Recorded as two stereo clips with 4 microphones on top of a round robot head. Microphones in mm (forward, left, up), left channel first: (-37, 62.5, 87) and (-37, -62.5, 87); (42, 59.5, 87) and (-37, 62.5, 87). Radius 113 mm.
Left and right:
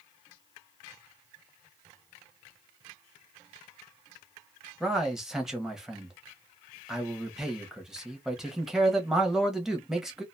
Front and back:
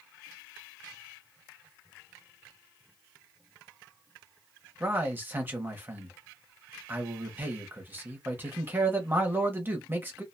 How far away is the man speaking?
About 1.0 m.